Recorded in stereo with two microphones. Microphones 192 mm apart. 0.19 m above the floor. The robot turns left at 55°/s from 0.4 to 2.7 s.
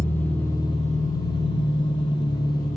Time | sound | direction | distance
0.0 | an engine running | 170° left | 4 m